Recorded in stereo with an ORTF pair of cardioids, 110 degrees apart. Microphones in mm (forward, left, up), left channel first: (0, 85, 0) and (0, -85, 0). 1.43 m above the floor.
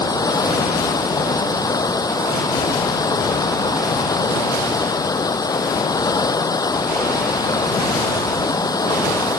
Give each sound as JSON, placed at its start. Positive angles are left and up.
{"t": 0.0, "sound": "running water", "azimuth_deg": 20}